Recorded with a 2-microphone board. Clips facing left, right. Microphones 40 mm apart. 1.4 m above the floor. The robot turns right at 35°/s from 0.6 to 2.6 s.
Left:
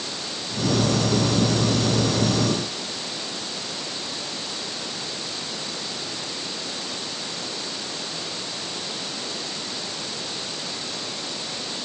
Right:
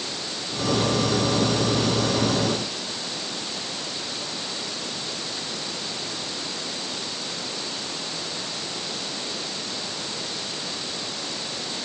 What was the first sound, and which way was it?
Only background noise.